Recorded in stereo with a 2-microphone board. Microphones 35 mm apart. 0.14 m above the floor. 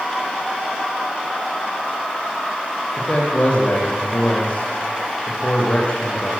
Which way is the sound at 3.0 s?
35° left (ahead or behind).